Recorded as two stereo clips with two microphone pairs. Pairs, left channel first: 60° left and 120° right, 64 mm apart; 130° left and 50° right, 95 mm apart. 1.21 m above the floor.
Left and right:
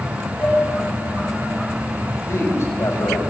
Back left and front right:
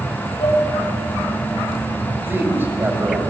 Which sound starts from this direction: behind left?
Dishes clattering, at 0.4 s.